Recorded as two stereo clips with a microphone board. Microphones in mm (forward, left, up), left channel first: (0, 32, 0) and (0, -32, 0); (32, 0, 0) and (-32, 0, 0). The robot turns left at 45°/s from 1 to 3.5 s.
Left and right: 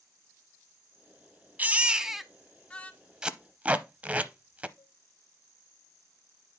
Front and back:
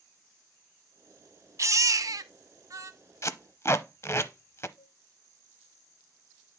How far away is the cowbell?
About 6.5 m.